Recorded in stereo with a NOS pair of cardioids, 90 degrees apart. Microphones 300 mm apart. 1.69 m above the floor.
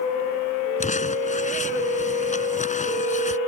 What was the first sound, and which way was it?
Crumpling, 25° left.